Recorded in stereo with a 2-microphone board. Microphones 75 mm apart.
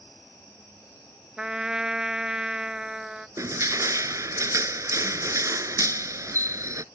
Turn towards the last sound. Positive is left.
turn(degrees=-50)  # may be behind; listen again after turning